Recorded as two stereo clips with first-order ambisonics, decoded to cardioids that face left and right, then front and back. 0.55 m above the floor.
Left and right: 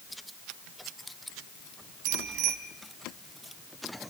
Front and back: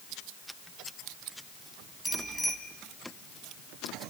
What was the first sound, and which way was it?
A bicycle bell, 80° right.